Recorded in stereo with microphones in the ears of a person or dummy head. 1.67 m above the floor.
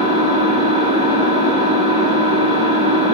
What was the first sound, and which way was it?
An engine running, 40° right (ahead or behind).